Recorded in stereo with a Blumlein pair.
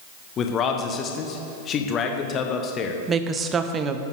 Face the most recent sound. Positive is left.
turn(degrees=-20)